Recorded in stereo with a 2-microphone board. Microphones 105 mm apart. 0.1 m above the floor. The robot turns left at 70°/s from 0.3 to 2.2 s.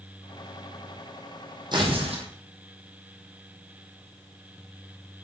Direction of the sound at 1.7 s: 45° right.